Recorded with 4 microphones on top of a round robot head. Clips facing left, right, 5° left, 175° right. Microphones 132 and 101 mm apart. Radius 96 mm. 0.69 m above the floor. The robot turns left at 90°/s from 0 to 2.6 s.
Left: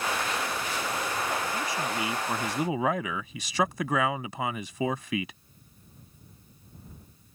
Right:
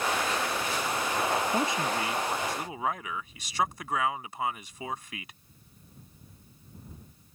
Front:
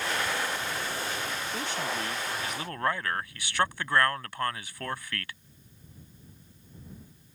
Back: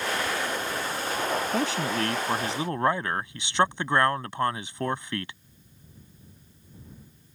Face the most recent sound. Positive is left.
turn(degrees=115)